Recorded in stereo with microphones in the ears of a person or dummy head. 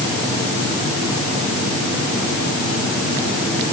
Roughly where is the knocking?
I don't hear knocking.